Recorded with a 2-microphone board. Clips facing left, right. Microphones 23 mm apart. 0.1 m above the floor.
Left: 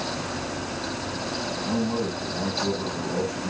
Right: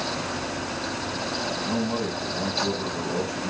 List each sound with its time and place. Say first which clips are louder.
1.6 s a man speaking: left 3 dB; 10° right (ahead or behind), 8 m